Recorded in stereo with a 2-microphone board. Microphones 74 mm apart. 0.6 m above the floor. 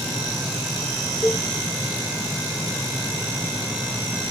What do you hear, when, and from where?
1.2 s a cowbell: 40° left (ahead or behind), 1.6 m